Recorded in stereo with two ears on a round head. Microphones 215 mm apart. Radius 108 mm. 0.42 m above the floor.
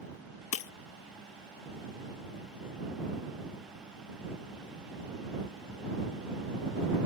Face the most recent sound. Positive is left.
turn(degrees=60)  # may be behind; listen again after turning